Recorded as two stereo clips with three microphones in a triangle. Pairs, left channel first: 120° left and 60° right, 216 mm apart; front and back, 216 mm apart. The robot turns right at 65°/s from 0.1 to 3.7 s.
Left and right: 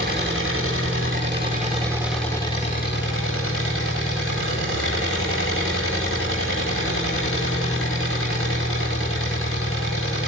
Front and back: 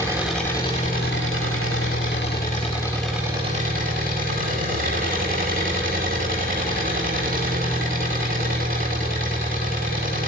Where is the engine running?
105° right, 10 m; by 10.3 s 130° left, 10 m.